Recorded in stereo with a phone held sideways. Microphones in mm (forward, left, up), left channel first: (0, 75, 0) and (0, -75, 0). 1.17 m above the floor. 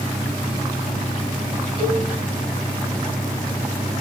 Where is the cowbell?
35° right (ahead or behind), 5.5 m.